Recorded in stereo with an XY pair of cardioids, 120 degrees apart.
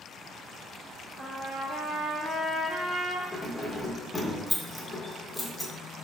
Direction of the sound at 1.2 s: 55° right.